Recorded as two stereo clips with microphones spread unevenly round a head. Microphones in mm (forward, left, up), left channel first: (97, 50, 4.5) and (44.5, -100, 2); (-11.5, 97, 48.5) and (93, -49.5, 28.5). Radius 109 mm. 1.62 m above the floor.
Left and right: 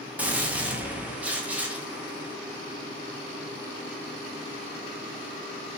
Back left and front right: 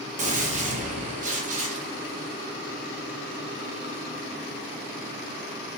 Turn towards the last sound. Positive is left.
turn(degrees=-35)